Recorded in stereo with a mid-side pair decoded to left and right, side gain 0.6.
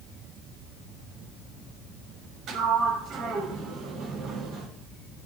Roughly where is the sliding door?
Ahead right.